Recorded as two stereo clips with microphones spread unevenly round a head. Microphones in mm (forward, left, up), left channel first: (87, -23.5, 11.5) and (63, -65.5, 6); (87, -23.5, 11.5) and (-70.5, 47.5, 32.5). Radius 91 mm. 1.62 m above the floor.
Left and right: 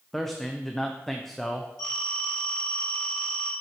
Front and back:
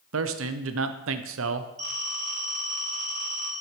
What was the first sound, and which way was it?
A man speaking, 150° left.